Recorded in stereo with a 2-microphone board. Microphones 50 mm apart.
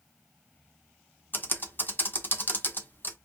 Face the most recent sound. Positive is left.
turn(degrees=45)  # may be behind; listen again after turning